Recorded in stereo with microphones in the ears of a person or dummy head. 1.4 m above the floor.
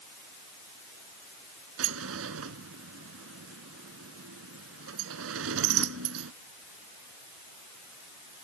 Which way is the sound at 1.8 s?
85° right.